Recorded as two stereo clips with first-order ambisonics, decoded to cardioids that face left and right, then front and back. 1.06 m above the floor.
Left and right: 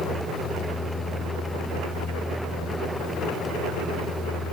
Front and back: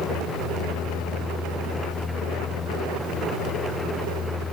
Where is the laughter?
I don't hear laughter.